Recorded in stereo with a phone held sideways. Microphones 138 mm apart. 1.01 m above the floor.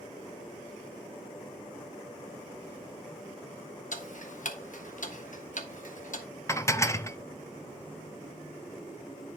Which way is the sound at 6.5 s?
20° left (ahead or behind).